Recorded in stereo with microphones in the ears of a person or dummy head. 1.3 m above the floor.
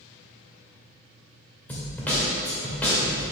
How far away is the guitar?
I don't hear a guitar.